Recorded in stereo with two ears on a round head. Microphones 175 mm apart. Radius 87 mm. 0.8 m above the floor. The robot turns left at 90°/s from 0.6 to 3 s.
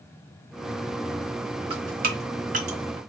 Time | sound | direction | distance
1.7 | dripping | 30° right (ahead or behind) | 0.7 m